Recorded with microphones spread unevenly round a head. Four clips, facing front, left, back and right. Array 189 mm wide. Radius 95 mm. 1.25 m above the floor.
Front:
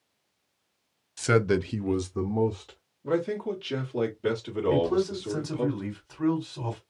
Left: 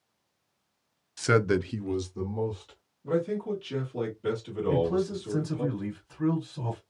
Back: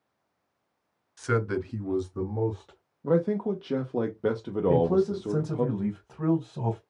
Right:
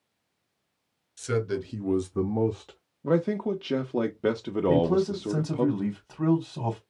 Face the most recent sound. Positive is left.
turn(degrees=-115)